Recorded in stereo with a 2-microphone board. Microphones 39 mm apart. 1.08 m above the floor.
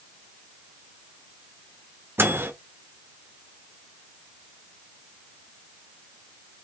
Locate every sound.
2.2 s a microwave: 70° right (ahead or behind), 0.6 m